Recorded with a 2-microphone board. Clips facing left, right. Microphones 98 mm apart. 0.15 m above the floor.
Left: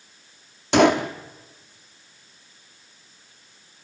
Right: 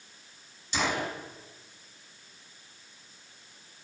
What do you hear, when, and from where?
0.7 s a gunshot: 70° left (ahead or behind), 1.5 m